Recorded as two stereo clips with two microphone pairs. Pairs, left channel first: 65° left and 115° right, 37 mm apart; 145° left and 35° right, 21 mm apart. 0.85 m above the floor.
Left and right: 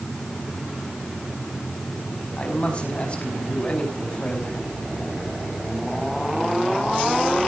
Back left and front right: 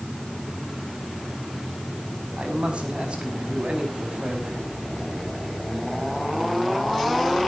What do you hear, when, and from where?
2.4 s a man speaking: 5° left, 5.5 m